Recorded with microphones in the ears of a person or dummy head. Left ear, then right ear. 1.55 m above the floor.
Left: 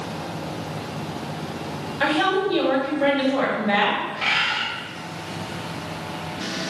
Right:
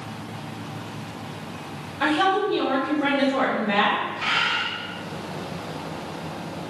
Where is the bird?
25° left (ahead or behind), 0.8 m.